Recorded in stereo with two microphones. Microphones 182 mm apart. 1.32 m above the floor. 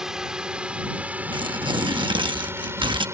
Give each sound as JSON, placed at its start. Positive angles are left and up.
{"t": 0.0, "sound": "a drone", "side_deg": -5}
{"t": 1.3, "sound": "tearing paper", "side_deg": -25}